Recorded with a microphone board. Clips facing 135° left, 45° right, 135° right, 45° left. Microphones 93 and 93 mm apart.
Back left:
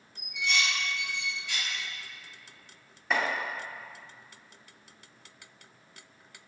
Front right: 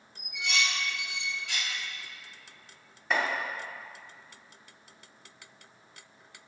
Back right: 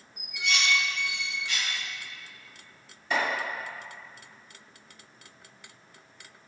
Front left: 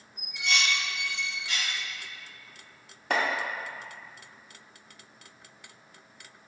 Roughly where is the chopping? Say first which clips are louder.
Even, front left 1 dB; ahead left.